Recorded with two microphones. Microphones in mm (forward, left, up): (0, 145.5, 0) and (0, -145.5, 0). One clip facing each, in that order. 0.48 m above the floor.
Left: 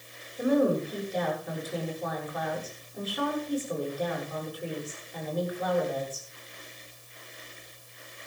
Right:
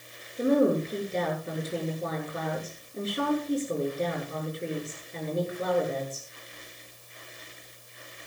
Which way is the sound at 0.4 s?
25° right (ahead or behind).